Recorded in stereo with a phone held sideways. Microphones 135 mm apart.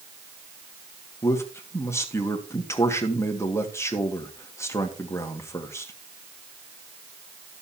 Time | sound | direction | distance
1.2 | a man speaking | 20° left (ahead or behind) | 1.9 m